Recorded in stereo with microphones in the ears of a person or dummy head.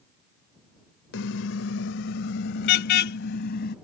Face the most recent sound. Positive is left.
turn(degrees=55)  # may be behind; listen again after turning